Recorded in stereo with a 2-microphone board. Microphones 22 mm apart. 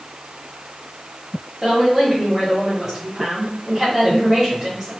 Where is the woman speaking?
15° right (ahead or behind), 1.1 m.